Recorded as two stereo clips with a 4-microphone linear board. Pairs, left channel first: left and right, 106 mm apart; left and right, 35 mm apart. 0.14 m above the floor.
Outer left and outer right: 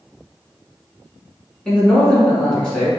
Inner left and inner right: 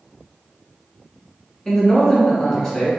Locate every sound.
1.6 s a man speaking: 10° left (ahead or behind), 1.1 m